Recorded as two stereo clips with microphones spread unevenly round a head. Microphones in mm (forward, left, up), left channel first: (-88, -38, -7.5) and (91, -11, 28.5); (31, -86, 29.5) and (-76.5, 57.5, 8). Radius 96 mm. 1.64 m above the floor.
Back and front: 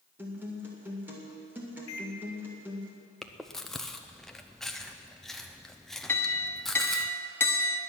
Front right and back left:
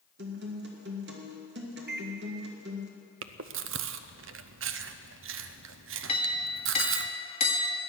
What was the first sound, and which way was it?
A guitar, 90° left.